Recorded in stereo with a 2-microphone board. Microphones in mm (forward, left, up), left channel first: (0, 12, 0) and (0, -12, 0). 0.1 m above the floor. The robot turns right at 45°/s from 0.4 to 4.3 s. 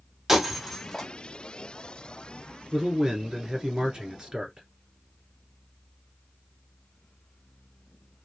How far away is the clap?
I don't hear a clap.